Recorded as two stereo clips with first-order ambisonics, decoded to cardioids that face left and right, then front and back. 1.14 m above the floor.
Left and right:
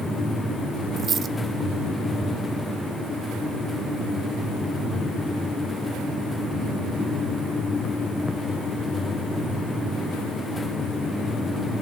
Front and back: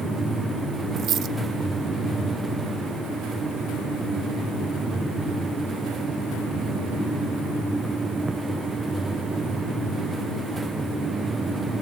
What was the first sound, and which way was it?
A dropped coin, 150° right.